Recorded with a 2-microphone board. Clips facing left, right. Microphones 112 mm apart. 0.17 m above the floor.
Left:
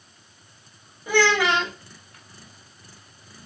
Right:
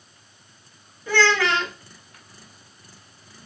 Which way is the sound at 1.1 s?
15° left (ahead or behind).